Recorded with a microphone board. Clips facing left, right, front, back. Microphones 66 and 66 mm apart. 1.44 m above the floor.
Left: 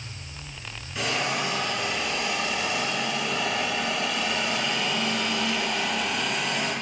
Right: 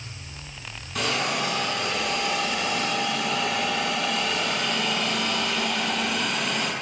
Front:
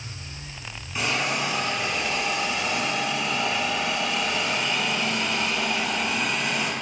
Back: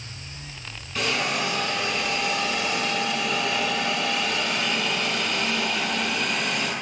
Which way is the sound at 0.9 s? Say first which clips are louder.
Right 1 dB, even; 75° right.